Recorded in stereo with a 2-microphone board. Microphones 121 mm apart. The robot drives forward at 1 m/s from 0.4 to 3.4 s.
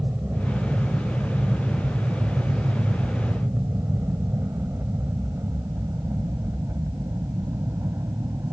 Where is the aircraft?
15° right (ahead or behind); by 8.5 s 25° right (ahead or behind).